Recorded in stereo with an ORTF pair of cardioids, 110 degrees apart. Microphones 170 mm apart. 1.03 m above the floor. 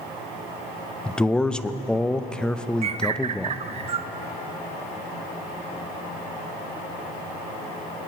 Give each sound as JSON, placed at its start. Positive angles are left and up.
{"t": 1.1, "sound": "a man speaking", "azimuth_deg": 5, "distance_m": 0.6}
{"t": 2.8, "sound": "a bird", "azimuth_deg": -40, "distance_m": 0.5}